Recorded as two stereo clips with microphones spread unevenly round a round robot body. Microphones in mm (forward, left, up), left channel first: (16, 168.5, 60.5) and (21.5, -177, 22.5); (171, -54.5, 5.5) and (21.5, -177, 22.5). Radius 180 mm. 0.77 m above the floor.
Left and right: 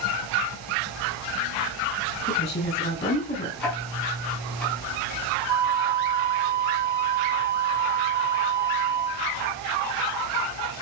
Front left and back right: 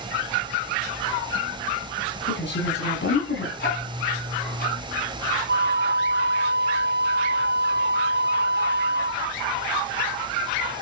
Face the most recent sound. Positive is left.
turn(degrees=-115)